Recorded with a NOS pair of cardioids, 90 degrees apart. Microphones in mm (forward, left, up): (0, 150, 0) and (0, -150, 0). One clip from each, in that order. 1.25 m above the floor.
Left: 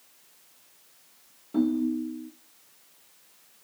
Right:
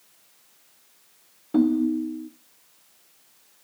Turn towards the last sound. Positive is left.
turn(degrees=-40)